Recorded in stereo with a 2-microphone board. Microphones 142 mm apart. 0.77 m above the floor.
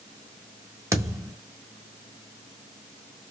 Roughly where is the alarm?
I don't hear an alarm.